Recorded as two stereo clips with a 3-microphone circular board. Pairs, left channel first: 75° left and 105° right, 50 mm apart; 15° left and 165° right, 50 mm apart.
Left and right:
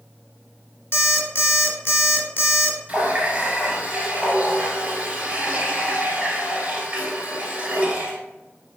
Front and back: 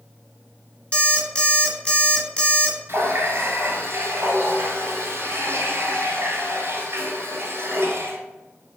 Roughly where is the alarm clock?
Left.